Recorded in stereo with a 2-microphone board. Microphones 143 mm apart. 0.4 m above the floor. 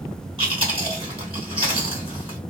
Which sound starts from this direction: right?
Chewing, at 0.4 s.